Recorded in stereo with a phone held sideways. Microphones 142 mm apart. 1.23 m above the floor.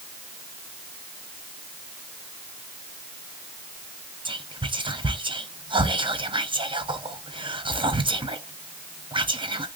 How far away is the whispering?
About 0.6 m.